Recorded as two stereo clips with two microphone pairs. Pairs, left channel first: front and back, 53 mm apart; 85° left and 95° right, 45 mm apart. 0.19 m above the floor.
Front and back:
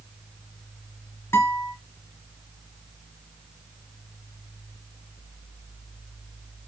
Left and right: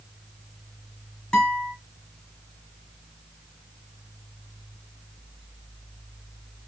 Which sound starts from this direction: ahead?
A guitar, at 1.3 s.